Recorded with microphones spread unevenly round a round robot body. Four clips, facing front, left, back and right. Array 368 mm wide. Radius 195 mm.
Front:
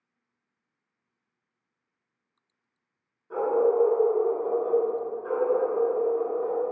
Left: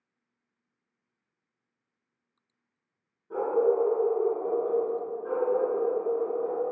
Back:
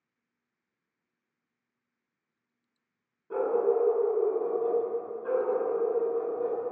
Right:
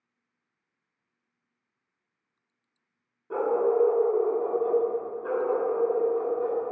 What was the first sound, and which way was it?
A dog barking, 95° right.